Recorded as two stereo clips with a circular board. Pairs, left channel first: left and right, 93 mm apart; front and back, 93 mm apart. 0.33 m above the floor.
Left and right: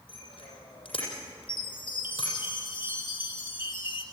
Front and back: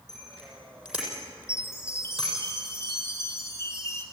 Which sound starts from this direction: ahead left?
A chime, at 1.5 s.